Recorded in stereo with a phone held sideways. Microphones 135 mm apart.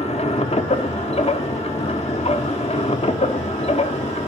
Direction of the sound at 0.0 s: 50° left (ahead or behind).